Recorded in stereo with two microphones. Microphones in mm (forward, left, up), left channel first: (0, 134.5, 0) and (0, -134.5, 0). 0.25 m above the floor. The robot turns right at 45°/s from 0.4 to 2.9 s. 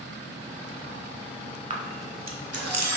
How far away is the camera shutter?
About 0.5 m.